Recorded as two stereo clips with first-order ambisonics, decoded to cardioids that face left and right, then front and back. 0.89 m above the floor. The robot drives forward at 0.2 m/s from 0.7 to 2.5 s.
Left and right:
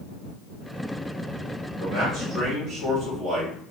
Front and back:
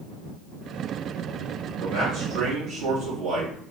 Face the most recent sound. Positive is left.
turn(degrees=-160)